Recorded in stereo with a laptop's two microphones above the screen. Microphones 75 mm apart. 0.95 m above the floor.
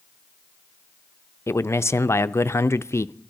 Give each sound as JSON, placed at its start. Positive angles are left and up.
{"t": 1.5, "sound": "a man speaking", "side_deg": 40, "distance_m": 0.5}